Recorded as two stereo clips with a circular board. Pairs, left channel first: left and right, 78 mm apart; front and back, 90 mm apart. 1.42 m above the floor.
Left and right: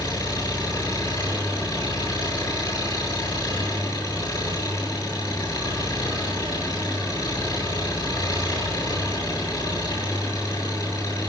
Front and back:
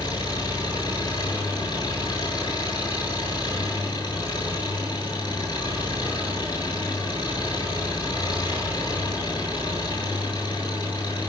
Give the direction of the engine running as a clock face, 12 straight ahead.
11 o'clock.